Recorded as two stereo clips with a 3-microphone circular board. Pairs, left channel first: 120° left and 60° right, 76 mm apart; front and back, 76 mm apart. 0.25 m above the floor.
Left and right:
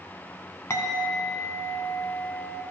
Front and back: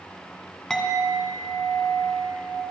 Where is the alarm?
I don't hear an alarm.